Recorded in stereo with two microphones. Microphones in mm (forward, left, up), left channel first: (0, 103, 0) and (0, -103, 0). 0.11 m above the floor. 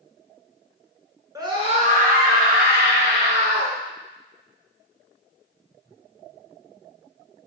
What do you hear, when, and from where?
1.4 s a scream: 15° right (ahead or behind), 1.2 m; by 3.8 s 60° right (ahead or behind), 3 m